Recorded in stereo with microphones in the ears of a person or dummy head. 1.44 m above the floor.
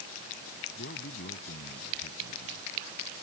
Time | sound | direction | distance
0.8 | a man speaking | 55° left (ahead or behind) | ?